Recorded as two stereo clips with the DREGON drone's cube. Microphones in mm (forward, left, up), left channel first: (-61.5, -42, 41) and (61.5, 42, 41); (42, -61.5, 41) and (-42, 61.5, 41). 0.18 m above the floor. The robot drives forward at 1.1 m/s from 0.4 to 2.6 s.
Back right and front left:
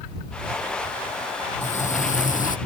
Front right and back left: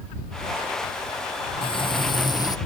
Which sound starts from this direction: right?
Frying, at 1.6 s.